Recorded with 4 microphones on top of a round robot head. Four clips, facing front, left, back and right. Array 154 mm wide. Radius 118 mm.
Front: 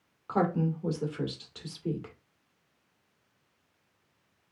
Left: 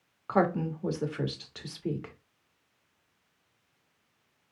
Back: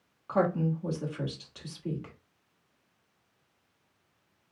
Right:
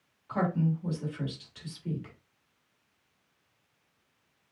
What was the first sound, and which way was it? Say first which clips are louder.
A woman speaking: left 3 dB, back 1 dB; 75° left.